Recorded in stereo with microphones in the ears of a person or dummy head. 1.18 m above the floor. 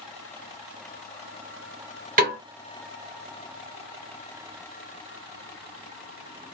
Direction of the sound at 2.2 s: 30° right (ahead or behind).